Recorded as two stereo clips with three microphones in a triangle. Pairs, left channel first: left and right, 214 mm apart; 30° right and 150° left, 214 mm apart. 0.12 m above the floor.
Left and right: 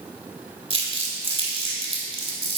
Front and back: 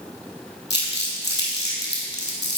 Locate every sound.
0.7 s crumpling: 65° right, 1.5 m